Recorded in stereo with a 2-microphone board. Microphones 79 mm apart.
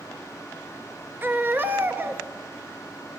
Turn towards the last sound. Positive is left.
turn(degrees=-25)  # may be behind; listen again after turning